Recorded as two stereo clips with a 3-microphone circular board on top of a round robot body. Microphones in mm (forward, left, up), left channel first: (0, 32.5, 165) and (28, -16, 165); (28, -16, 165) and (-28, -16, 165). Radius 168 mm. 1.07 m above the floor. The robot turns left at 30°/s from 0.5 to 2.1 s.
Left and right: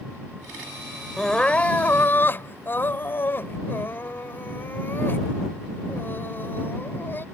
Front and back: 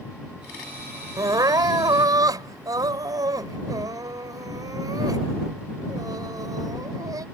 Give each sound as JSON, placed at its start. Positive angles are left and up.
{"t": 1.2, "sound": "crying", "azimuth_deg": -155}